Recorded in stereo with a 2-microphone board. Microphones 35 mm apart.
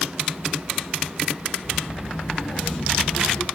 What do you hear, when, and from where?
1.6 s a child speaking: 30° left (ahead or behind), 7 m; by 3.5 s 20° left (ahead or behind), 6.5 m